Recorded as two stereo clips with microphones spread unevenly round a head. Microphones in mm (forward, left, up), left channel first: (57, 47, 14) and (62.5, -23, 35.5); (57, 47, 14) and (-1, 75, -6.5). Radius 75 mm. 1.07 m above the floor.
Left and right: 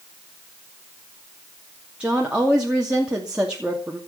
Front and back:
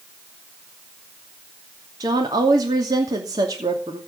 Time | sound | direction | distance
2.0 | a woman speaking | 170° right | 2.5 m